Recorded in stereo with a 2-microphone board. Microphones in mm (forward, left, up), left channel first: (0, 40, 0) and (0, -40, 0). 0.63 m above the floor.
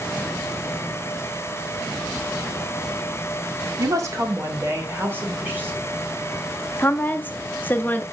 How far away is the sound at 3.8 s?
About 1.6 m.